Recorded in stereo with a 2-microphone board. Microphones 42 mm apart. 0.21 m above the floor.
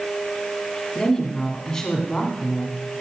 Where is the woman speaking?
15° left (ahead or behind), 2 m.